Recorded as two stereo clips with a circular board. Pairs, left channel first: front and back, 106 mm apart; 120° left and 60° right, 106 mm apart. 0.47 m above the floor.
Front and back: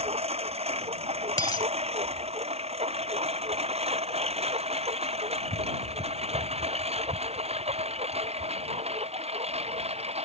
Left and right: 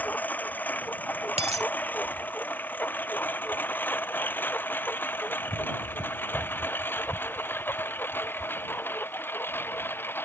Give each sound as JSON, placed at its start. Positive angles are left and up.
{"t": 0.0, "sound": "a lawn mower", "azimuth_deg": -165}
{"t": 1.4, "sound": "a dropped coin", "azimuth_deg": -55}